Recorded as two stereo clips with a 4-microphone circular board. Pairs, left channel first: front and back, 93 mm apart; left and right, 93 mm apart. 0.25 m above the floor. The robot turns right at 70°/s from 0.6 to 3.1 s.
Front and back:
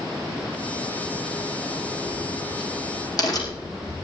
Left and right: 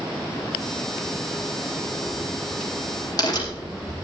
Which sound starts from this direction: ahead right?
A crack, at 1.7 s.